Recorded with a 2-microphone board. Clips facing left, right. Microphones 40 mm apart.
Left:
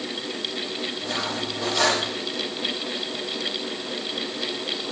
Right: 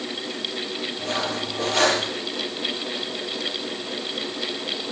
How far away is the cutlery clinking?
About 5 m.